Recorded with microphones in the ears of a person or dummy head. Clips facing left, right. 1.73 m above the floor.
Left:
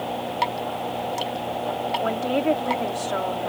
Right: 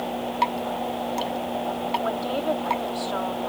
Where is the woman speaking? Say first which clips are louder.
Left 6 dB; 35° left (ahead or behind).